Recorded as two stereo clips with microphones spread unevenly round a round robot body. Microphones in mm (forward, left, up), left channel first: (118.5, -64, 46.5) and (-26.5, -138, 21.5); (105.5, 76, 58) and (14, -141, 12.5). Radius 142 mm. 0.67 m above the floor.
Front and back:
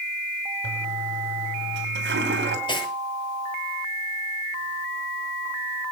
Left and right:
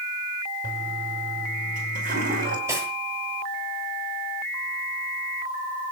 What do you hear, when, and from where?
0.6 s a toilet flushing: 175° right, 3 m
2.7 s cutlery clinking: 35° right, 8.5 m